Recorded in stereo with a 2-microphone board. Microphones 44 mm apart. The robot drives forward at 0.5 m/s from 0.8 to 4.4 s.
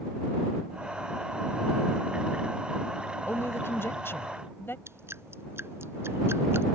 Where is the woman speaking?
70° left (ahead or behind); by 4.8 s 60° left (ahead or behind).